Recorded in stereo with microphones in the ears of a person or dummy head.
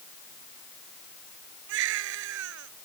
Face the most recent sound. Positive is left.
turn(degrees=-75)  # may be behind; listen again after turning